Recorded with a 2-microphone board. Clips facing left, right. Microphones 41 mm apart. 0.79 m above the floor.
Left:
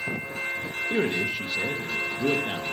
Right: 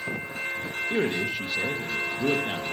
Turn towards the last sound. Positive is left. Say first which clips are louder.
# left 1 dB
turn(degrees=10)  # may be behind; listen again after turning